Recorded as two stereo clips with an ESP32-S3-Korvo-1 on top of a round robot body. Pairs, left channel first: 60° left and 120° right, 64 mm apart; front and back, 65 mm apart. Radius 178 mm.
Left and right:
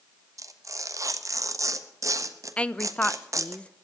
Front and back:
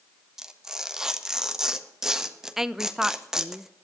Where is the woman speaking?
105° left, 0.9 m.